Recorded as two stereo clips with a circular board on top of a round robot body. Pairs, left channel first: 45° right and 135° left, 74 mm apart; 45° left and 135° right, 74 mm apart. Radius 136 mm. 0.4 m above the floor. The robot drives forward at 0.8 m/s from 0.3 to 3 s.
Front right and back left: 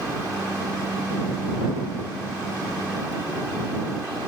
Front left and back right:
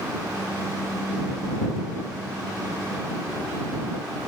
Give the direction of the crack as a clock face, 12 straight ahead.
No crack in this recording.